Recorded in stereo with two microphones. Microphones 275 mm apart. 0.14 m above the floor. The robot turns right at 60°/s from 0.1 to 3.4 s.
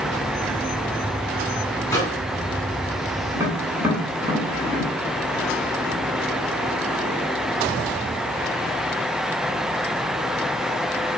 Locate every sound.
1.9 s a microwave: 10° left (ahead or behind), 1.2 m; by 2.2 s 15° left (ahead or behind), 1.2 m
3.3 s tapping: 10° right (ahead or behind), 1.1 m